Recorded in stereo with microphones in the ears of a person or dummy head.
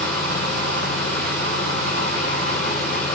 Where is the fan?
10° left (ahead or behind), 4.5 m.